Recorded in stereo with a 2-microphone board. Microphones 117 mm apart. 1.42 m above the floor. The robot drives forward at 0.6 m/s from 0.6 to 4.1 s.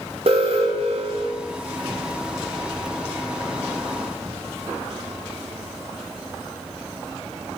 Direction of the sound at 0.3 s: 55° right (ahead or behind).